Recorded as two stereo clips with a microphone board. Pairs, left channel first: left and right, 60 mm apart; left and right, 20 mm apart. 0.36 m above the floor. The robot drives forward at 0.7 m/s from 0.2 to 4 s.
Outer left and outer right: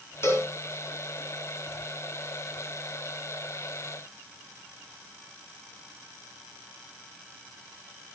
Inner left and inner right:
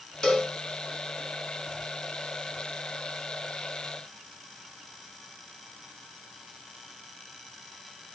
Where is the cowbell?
45° left (ahead or behind), 3 m; by 0.5 s 40° left (ahead or behind), 3.5 m.